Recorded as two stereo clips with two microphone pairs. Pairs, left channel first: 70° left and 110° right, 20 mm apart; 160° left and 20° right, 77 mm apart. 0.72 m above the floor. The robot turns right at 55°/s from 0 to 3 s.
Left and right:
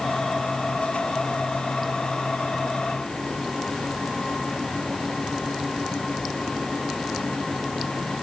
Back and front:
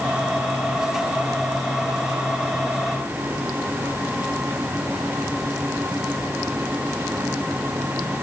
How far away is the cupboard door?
I don't hear a cupboard door.